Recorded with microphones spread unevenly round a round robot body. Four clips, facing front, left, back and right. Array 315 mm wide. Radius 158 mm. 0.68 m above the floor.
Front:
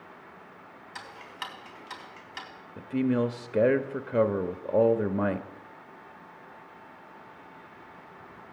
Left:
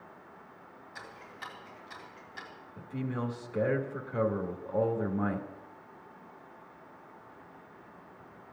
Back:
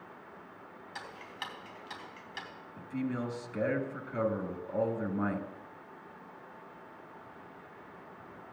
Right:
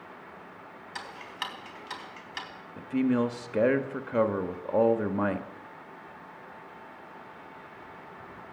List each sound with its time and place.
0.9 s ticking: 85° right, 3.5 m
2.8 s a man speaking: 30° right, 1.3 m